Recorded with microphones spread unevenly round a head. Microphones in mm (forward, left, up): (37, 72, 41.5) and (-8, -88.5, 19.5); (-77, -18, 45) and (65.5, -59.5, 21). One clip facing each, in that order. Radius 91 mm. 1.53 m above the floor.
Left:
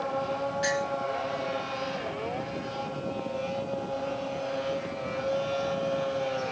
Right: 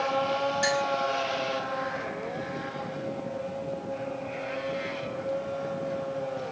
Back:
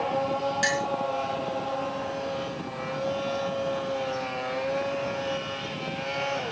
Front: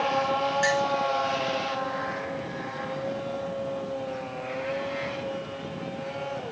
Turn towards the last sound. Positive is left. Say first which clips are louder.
# left 1 dB, front 3 dB
turn(degrees=-145)